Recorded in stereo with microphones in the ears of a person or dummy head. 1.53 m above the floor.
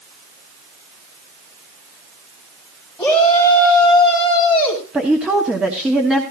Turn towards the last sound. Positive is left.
turn(degrees=-5)  # may be behind; listen again after turning